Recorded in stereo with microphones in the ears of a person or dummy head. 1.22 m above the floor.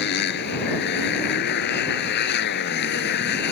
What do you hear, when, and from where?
0.0 s a motorcycle: 65° left (ahead or behind)